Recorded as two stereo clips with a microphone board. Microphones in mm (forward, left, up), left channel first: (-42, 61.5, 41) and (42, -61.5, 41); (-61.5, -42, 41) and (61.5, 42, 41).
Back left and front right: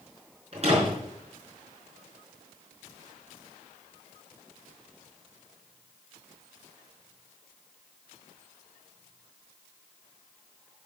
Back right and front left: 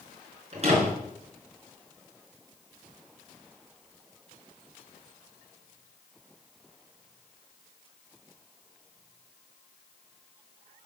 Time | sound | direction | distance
0.5 | a door slam | 10° right | 5.5 m